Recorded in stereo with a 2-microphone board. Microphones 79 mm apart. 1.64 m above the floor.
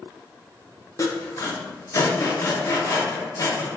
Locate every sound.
1.0 s sawing: 40° left (ahead or behind), 0.6 m